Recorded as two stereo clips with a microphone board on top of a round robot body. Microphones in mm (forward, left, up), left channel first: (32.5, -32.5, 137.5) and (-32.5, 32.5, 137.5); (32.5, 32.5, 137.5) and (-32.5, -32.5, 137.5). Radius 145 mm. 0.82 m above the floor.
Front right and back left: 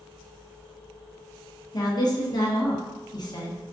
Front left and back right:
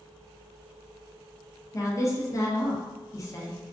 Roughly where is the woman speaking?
Ahead.